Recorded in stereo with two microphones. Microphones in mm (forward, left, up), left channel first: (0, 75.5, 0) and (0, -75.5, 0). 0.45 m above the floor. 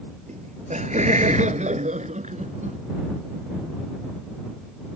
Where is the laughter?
50° right (ahead or behind).